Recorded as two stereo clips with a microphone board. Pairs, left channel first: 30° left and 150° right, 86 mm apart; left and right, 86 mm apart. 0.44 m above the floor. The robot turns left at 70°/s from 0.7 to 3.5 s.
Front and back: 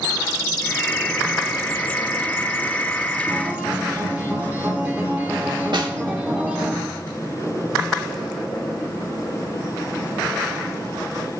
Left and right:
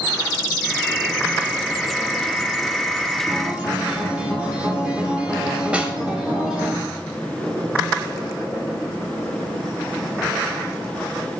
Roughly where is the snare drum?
Behind.